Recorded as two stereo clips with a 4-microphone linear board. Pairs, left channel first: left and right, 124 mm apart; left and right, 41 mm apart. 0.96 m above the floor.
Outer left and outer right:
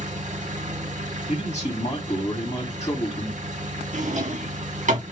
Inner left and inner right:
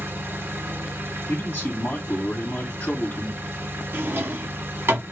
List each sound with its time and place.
0.0 s an engine running: 80° right, 1.5 m
1.3 s a man speaking: 60° left (ahead or behind), 1.7 m
3.9 s a drawer: 85° right, 1.2 m